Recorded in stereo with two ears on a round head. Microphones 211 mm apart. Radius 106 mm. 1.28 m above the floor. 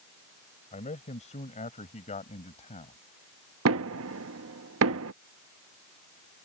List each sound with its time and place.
0.7 s a man speaking: 30° left (ahead or behind)
3.6 s knocking: 65° right (ahead or behind)